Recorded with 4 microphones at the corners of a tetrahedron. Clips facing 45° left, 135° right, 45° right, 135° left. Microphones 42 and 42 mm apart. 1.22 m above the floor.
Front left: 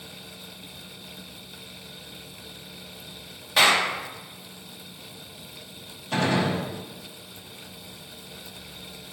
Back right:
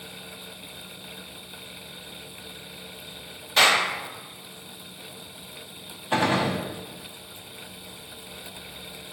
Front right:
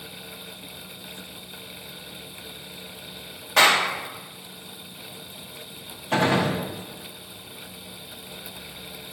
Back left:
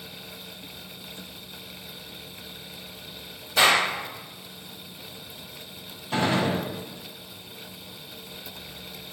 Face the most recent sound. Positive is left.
turn(degrees=-65)